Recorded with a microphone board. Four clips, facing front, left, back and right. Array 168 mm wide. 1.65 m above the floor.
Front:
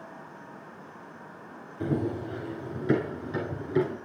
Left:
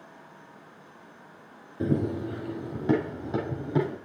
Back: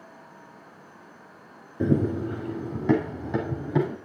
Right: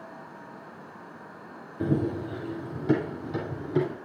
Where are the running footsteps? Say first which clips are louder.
Even, back 5 dB; 170° left, 2 m; by 4.0 s 145° left, 4.5 m.